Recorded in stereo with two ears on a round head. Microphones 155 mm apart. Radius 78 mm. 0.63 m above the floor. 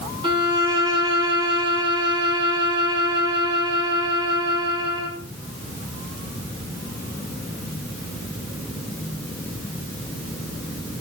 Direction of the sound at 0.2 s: 30° right (ahead or behind).